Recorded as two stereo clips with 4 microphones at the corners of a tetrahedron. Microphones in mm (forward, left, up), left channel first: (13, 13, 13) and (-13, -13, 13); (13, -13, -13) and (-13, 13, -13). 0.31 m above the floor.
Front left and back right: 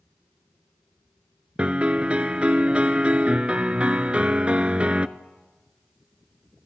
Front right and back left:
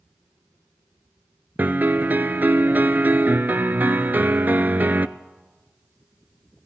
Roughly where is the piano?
Behind.